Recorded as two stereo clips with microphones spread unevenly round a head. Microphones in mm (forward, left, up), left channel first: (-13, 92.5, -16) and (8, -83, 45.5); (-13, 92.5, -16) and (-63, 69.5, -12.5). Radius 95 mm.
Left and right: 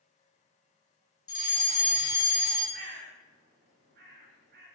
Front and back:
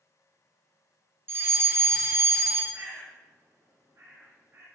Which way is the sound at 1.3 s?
155° left.